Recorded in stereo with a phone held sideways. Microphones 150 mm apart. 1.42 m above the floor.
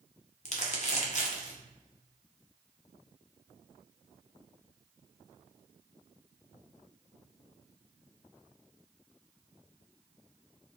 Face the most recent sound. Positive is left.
turn(degrees=50)  # may be behind; listen again after turning